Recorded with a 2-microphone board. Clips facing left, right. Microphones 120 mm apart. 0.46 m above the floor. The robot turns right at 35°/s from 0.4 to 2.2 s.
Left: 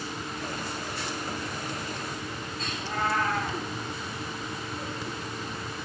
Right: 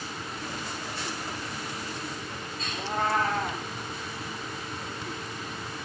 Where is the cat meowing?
25° right (ahead or behind), 7 m.